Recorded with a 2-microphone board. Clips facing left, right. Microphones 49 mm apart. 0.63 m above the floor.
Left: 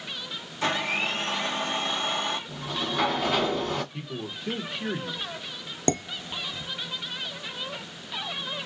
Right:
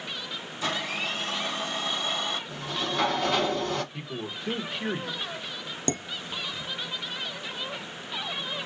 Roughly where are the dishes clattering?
Left.